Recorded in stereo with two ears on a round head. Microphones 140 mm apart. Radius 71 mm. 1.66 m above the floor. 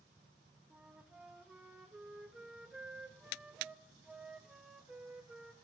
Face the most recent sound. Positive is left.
turn(degrees=-5)  # may be behind; listen again after turning